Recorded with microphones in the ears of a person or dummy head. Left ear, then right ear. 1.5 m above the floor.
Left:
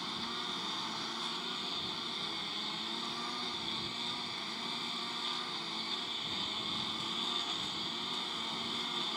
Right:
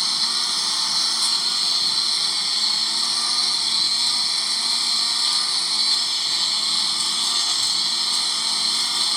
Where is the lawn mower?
65° right (ahead or behind).